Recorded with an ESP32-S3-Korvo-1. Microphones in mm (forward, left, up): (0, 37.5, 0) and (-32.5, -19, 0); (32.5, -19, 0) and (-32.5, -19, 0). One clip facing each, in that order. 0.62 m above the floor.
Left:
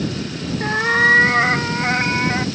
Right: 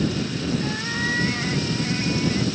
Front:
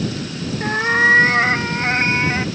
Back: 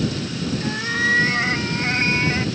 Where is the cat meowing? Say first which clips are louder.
Left 10 dB, front 9 dB; 35° left; by 2.5 s 65° left.